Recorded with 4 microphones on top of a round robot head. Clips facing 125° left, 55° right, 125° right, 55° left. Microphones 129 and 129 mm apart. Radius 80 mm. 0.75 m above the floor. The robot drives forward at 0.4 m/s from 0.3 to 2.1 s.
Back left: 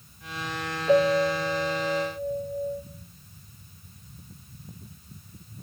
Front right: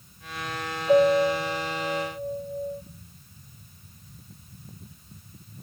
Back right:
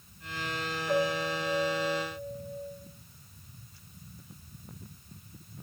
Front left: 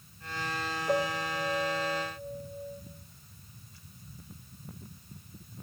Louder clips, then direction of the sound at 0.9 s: Front right 2 dB, back right 2 dB; 125° left.